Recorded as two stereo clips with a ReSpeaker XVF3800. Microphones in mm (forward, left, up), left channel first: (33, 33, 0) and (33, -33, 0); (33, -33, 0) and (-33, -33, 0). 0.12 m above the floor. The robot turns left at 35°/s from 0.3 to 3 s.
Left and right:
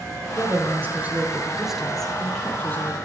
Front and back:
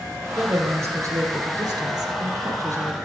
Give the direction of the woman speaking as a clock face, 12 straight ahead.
4 o'clock.